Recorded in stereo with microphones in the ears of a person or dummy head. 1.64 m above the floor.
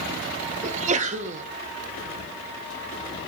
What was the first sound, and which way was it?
A sneeze, 40° right (ahead or behind).